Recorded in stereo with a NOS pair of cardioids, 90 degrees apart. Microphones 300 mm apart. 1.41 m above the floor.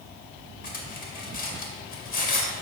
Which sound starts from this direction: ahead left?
Cutlery clinking, at 0.6 s.